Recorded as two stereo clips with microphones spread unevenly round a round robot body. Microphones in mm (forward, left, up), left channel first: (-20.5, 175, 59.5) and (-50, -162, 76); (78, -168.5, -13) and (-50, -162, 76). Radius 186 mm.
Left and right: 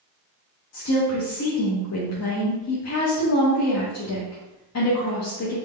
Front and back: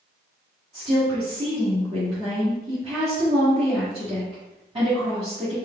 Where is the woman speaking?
90° left, 1.0 m.